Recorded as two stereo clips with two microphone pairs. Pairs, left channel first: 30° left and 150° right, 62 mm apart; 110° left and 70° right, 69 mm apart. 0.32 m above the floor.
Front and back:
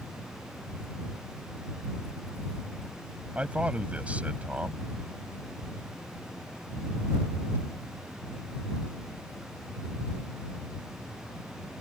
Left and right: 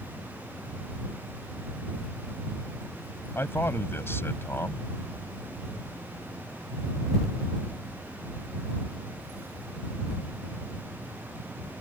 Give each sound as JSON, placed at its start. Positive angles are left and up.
{"t": 3.4, "sound": "a man speaking", "azimuth_deg": 155}